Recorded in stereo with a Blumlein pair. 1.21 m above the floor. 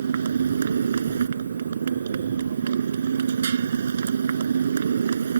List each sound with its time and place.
0.0 s a motorcycle: 70° right